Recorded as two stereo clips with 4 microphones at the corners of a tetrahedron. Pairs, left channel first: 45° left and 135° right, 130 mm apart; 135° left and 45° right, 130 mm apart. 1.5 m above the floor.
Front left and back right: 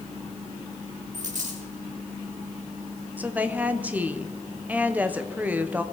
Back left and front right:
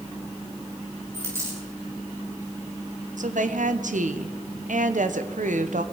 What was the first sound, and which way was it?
A dropped coin, 115° right.